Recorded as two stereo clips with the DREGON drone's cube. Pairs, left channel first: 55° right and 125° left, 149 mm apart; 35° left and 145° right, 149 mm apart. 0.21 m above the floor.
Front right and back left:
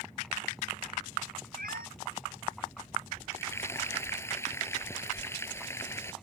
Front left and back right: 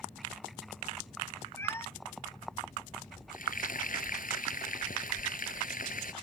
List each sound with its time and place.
1.6 s a cat meowing: 110° left
3.3 s frying: 15° left